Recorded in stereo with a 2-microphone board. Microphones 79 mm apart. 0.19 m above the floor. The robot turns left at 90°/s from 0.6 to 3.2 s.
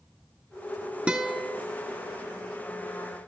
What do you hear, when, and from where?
1.1 s a guitar: 165° right, 1.5 m; by 1.6 s 150° left, 1.5 m